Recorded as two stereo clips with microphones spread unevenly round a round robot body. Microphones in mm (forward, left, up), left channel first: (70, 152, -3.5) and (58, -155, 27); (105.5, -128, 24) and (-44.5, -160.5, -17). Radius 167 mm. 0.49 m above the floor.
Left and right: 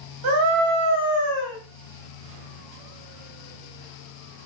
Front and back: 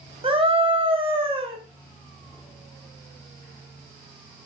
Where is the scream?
120° right, 2.5 m.